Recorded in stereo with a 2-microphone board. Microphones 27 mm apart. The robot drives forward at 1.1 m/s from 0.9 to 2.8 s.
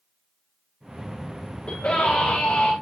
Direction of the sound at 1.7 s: 50° left (ahead or behind).